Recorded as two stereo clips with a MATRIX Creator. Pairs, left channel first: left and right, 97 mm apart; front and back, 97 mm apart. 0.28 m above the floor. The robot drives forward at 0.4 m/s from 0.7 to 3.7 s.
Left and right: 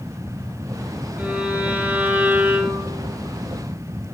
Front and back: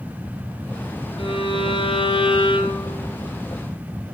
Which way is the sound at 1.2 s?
15° right.